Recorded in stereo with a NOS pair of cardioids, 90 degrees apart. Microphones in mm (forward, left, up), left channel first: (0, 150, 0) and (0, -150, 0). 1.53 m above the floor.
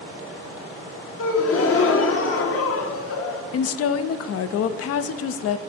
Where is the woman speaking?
55° left, 0.5 m.